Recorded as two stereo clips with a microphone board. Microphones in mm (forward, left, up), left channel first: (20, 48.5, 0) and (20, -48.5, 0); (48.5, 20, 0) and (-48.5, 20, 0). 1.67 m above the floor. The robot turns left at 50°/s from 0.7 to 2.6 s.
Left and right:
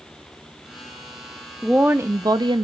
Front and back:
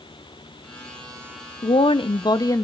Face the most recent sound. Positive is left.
turn(degrees=-55)